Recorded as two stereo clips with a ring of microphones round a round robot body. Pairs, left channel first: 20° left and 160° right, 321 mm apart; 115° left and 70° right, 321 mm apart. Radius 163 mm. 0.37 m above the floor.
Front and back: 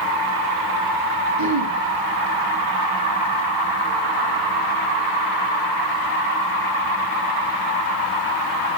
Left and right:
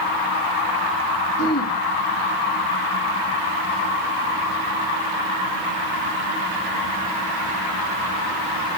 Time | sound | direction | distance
1.4 | throat clearing | 160° left | 4.5 m